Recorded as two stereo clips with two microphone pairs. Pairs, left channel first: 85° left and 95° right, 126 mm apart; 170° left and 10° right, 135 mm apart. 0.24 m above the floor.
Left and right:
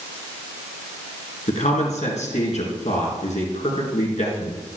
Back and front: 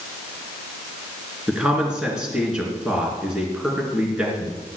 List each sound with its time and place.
1.5 s a man speaking: 75° left, 3.5 m